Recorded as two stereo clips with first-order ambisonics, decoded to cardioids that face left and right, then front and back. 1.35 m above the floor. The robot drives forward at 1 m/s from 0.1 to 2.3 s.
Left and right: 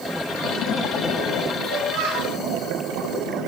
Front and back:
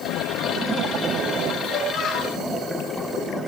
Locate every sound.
1.6 s a child speaking: 55° right, 3 m; by 2.4 s 65° right, 3 m